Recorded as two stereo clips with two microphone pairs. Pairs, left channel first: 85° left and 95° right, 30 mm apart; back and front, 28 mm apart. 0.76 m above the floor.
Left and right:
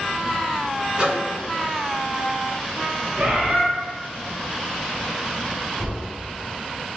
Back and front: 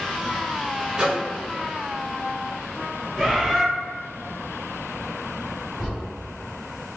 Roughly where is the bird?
Right.